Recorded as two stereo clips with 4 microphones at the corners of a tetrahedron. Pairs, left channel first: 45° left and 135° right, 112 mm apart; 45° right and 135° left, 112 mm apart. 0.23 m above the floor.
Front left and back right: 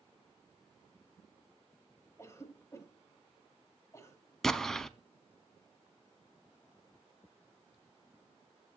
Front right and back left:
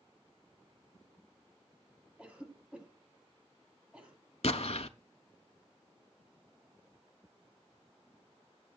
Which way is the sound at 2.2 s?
70° left.